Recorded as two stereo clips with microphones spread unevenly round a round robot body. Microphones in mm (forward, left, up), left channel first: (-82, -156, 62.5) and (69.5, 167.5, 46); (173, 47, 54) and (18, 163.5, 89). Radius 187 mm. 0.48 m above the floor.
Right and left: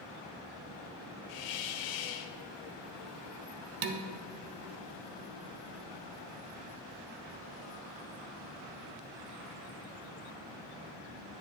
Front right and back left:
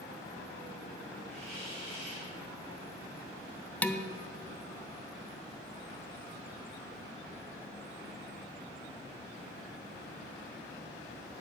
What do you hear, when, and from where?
1.3 s a hiss: 125° right, 0.7 m
3.8 s dishes clattering: 35° left, 0.6 m